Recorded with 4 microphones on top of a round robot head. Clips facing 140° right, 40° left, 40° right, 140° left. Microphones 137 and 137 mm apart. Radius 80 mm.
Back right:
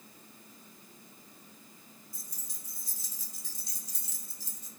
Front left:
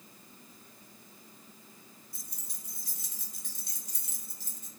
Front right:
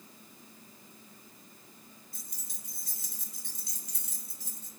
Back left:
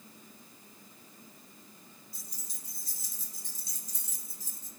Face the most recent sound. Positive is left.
turn(degrees=-5)